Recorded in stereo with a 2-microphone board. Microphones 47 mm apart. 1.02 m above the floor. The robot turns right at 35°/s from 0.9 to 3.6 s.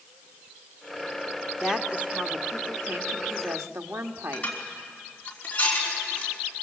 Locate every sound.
1.6 s a woman speaking: 165° right, 1.4 m; by 4.5 s 95° right, 1.4 m
4.3 s dishes clattering: 25° left (ahead or behind), 5 m